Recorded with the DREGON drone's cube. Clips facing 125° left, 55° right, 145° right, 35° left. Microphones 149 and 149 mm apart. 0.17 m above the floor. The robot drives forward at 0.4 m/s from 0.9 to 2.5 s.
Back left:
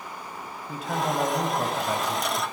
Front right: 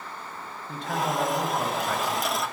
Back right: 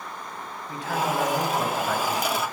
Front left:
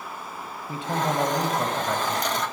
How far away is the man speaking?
About 1.1 m.